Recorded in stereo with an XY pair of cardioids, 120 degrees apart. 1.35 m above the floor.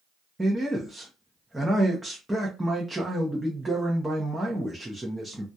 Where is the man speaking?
5° right, 0.6 m.